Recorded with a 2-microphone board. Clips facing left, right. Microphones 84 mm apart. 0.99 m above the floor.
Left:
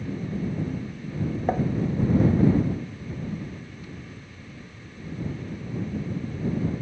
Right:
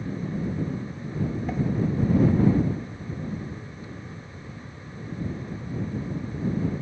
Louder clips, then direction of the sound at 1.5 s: Left 6 dB; 45° left (ahead or behind).